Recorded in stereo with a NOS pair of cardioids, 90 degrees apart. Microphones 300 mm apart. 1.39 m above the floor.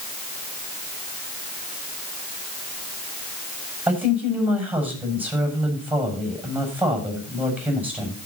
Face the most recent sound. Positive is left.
turn(degrees=-5)